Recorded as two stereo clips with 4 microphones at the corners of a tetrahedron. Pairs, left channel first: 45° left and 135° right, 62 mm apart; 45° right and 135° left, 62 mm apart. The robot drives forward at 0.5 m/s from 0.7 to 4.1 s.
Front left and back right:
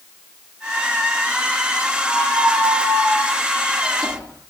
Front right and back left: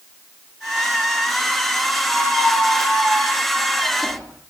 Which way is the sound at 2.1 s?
130° right.